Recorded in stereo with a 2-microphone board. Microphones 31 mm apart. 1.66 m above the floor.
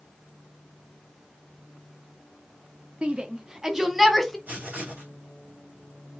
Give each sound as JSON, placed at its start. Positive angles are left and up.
{"t": 3.0, "sound": "a shout", "side_deg": -40, "distance_m": 0.8}
{"t": 4.5, "sound": "writing", "side_deg": -60, "distance_m": 2.5}